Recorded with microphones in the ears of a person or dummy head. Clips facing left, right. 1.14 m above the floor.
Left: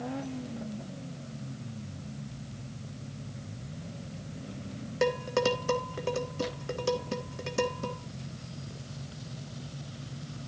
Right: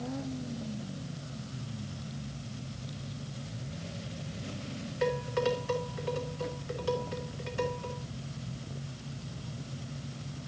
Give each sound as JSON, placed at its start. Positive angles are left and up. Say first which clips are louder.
{"t": 5.0, "sound": "dishes clattering", "louder": "left 2 dB", "side_deg": 55, "distance_m": 1.5}